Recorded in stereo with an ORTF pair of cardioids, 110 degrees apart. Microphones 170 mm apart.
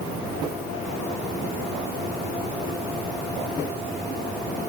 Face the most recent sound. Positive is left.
No sound to turn to.